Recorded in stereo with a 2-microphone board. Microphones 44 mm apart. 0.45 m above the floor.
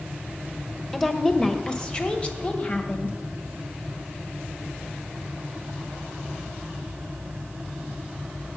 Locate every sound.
0.9 s a woman speaking: 5° left (ahead or behind), 1.5 m; by 3.2 s 35° left (ahead or behind), 2.5 m